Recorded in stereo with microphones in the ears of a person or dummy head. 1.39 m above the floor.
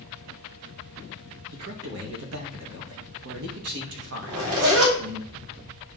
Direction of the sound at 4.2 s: 85° right.